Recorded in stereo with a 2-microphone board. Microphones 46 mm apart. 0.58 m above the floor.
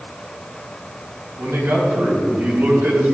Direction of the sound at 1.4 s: 70° right (ahead or behind).